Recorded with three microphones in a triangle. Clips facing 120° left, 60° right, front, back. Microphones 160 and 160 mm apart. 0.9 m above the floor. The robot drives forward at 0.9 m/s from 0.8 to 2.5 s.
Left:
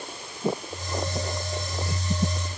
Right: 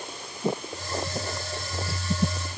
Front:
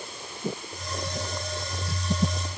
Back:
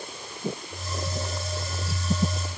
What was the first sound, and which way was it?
Only background noise.